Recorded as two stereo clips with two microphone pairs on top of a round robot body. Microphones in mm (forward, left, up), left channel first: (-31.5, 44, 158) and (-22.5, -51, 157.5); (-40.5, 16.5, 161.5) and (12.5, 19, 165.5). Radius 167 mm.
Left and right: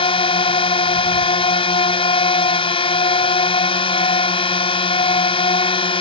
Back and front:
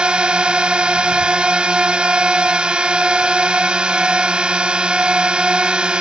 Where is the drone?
75° left.